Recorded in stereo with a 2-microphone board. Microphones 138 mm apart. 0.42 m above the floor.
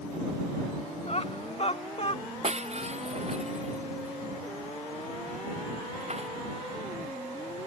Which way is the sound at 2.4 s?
50° right (ahead or behind).